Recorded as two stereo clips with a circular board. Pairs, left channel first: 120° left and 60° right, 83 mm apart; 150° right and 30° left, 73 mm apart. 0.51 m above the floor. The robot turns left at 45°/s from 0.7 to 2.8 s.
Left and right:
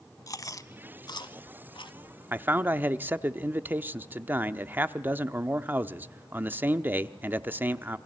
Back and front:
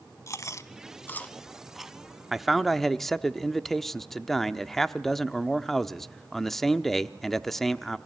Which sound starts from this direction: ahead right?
A man speaking, at 2.3 s.